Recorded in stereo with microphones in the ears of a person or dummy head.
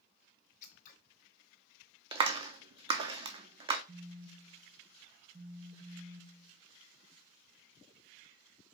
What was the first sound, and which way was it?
Scissors, 45° left (ahead or behind).